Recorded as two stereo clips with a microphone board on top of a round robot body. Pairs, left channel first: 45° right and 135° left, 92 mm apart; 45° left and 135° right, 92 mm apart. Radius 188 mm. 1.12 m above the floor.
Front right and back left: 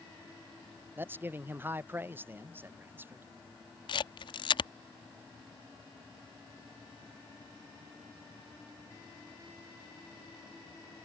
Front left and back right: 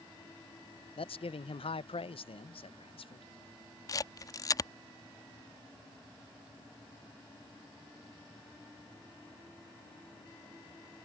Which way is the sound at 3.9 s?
10° right.